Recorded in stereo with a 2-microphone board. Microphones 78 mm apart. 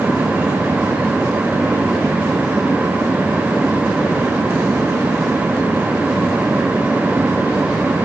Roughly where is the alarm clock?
I don't hear an alarm clock.